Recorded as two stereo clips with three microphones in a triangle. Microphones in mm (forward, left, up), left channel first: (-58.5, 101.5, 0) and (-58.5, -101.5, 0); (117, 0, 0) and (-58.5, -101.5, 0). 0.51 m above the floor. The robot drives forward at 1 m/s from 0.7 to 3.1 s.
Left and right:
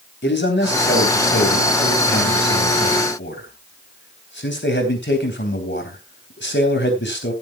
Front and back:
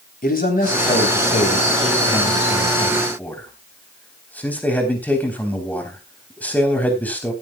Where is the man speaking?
70° left, 3.5 m; by 7.3 s 110° left, 3.5 m.